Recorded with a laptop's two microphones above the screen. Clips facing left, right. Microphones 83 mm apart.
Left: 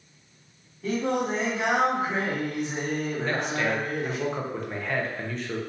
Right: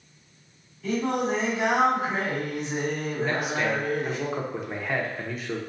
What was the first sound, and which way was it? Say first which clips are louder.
Singing: even; 45° left (ahead or behind).